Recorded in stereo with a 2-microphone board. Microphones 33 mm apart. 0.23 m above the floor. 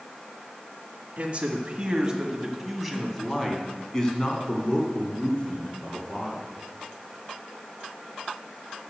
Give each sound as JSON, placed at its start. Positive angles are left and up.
{"t": 1.2, "sound": "a man speaking", "side_deg": -40, "distance_m": 1.8}